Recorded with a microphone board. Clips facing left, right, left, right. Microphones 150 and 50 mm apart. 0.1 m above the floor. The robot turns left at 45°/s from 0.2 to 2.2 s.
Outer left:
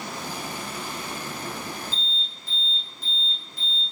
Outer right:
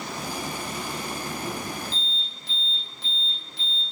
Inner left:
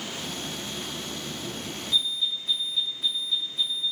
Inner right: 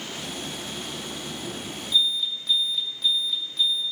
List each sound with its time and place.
1.9 s an alarm: 75° right (ahead or behind), 6.5 m